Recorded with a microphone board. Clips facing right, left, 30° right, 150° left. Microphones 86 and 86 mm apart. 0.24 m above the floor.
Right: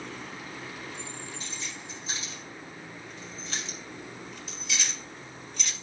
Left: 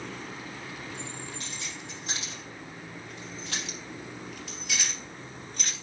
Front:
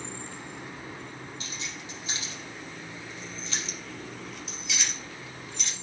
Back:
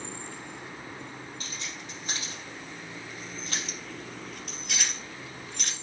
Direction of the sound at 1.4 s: 110° left.